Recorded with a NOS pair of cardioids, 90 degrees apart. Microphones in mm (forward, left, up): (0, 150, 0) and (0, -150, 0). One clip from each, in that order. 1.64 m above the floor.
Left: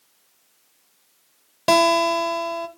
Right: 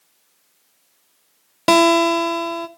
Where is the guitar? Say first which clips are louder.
Right 3 dB; 20° right, 0.6 m.